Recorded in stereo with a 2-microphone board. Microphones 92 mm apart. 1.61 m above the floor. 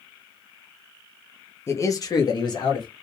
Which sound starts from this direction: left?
A man speaking, at 1.7 s.